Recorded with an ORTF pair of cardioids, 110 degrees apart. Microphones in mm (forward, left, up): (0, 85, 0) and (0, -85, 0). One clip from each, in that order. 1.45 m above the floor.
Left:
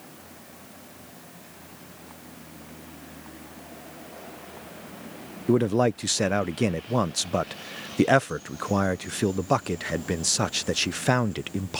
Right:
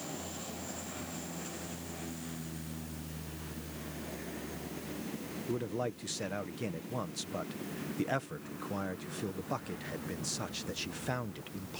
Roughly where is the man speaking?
Ahead left.